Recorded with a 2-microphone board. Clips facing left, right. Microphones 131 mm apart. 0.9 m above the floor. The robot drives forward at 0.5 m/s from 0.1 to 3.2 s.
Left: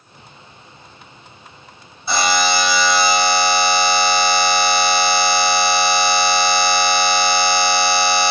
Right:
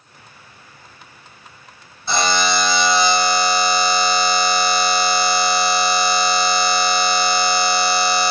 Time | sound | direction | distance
2.1 | a buzzer | 5° left (ahead or behind) | 2.5 m